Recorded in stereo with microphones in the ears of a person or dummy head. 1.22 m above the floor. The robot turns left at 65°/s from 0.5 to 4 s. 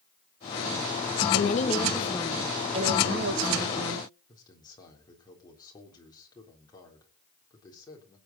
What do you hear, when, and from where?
1.3 s a woman speaking: 60° left, 1.2 m; by 4.1 s 115° right, 1.2 m
4.3 s a man speaking: 20° left (ahead or behind), 3.5 m